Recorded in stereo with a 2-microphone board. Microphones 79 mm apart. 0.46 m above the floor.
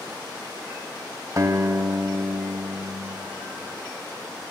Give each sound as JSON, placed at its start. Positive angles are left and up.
{"t": 1.4, "sound": "a guitar", "side_deg": -45, "distance_m": 1.3}